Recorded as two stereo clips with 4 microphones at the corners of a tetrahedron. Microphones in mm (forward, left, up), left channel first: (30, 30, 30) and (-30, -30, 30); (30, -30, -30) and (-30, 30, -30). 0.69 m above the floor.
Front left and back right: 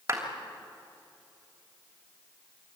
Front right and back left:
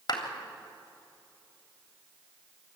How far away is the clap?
About 3 m.